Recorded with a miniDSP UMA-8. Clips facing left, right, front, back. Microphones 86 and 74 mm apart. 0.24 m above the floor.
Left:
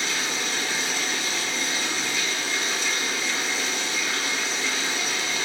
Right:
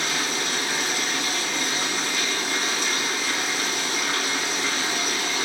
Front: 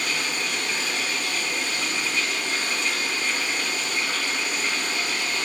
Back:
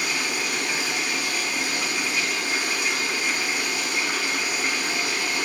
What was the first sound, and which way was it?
Running water, 100° right.